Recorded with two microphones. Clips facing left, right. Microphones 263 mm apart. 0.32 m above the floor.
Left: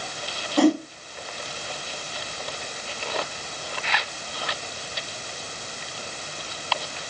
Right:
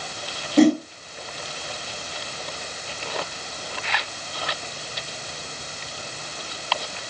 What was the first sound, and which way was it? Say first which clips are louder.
A whoosh: right 3 dB; 20° right (ahead or behind).